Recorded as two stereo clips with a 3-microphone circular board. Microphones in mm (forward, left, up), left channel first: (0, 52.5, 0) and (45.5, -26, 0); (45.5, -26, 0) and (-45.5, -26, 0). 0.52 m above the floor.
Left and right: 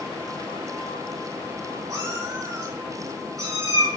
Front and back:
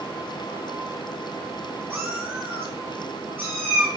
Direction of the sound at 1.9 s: 115° right.